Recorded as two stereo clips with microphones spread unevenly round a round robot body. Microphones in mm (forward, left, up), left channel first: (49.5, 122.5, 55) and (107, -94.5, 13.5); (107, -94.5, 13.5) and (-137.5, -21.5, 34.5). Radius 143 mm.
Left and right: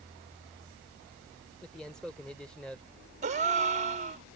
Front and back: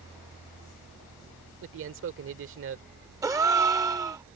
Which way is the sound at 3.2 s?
120° right.